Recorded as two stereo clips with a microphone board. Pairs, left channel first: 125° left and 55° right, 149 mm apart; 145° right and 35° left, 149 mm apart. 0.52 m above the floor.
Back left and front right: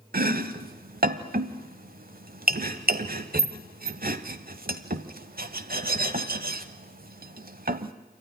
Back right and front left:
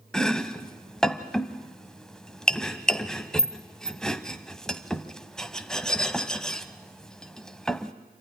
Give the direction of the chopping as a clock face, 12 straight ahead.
2 o'clock.